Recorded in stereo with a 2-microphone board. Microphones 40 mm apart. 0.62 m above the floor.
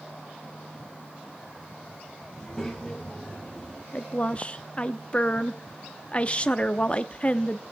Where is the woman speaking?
30° left (ahead or behind), 0.6 m.